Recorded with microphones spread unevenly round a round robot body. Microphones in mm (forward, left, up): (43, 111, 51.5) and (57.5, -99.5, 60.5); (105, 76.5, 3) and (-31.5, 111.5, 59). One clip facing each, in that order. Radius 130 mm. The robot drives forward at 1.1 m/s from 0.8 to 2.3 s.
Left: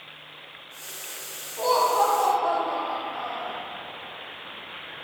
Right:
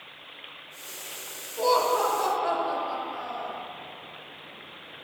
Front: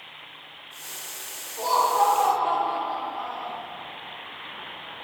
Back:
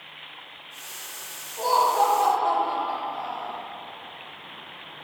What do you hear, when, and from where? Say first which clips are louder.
1.6 s laughter: even, back 1 dB; 55° right, 1.1 m; by 3.5 s 135° right, 1.1 m